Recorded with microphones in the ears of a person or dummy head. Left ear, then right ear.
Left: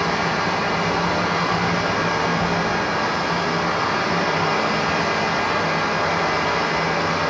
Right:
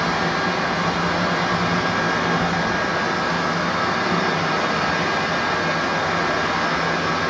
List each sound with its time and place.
0.0 s a fan: 5° right (ahead or behind), 3 m